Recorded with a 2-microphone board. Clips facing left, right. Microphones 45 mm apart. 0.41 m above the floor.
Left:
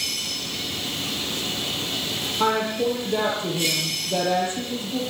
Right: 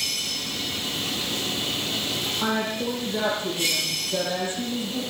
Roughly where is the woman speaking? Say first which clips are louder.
Left 6 dB; left.